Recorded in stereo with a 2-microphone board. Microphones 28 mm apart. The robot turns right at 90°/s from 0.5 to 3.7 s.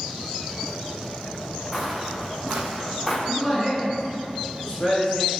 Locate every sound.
1.7 s footsteps: 15° left (ahead or behind), 1.0 m; by 3.2 s 20° left (ahead or behind), 1.2 m
3.3 s a man speaking: straight ahead, 1.9 m; by 5.4 s 40° left, 1.9 m